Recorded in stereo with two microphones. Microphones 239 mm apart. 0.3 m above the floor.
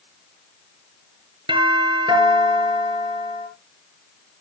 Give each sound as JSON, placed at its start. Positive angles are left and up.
{"t": 1.5, "sound": "a doorbell", "side_deg": -20, "distance_m": 7.0}